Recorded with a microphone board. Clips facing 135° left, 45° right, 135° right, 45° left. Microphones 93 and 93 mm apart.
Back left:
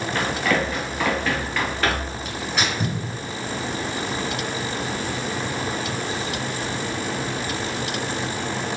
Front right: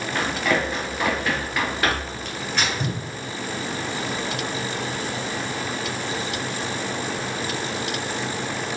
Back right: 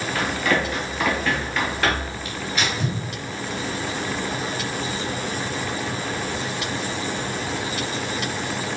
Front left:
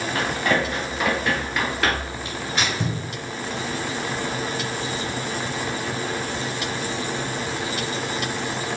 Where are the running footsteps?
10° left, 1.9 m; by 2.2 s 95° right, 1.5 m.